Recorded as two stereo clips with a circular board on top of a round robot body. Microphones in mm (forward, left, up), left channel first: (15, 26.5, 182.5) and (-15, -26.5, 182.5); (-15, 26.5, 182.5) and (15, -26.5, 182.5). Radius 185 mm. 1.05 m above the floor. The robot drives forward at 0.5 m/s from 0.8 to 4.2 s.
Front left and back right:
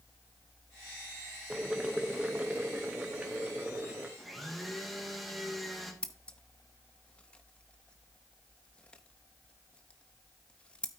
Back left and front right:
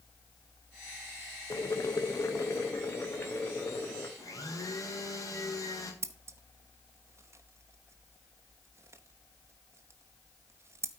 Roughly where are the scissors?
Ahead.